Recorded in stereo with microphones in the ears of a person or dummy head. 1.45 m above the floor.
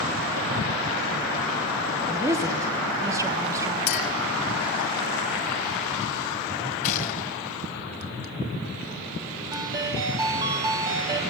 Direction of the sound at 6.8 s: 45° left (ahead or behind).